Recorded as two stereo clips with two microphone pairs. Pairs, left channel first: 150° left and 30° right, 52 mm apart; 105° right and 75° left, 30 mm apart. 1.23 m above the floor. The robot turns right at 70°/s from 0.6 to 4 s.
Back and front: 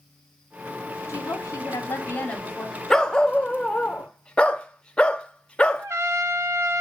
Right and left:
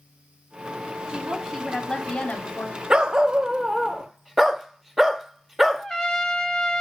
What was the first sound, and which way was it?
A woman speaking, 130° left.